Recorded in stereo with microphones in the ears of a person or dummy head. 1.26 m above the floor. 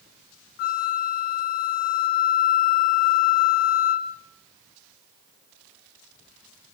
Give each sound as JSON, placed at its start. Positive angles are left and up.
{"t": 0.6, "sound": "a flute", "side_deg": 55, "distance_m": 1.4}